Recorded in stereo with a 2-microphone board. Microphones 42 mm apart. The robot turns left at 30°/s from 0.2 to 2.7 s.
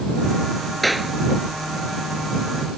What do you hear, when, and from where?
0.8 s a clap: 5° left (ahead or behind); by 1.1 s 5° right (ahead or behind)